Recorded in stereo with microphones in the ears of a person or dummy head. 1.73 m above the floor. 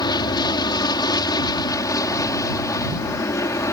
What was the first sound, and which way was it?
An aircraft, 20° left (ahead or behind).